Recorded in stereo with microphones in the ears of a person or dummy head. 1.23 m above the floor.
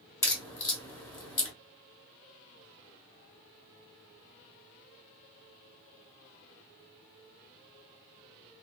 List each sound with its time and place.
0.2 s a crack: 20° left (ahead or behind), 1.2 m